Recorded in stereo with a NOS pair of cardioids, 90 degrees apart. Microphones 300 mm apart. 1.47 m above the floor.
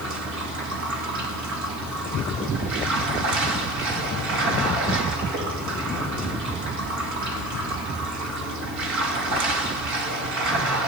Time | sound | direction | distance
0.0 | running water | 65° right | 2.5 m